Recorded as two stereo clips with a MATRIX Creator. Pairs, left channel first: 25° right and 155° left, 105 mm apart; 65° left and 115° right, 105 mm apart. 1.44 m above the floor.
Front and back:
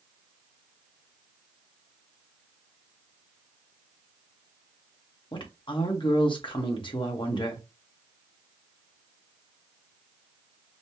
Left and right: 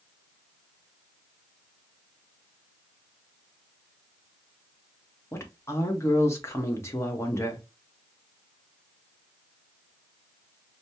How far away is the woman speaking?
About 1.2 m.